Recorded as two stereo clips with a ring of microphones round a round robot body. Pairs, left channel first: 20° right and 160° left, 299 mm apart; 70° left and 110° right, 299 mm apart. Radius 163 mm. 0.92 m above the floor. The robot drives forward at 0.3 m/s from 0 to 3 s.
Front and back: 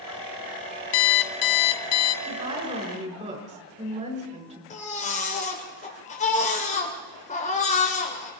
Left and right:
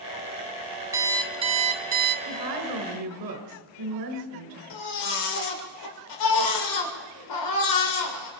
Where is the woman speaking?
130° right, 5 m; by 4.6 s 135° right, 5 m.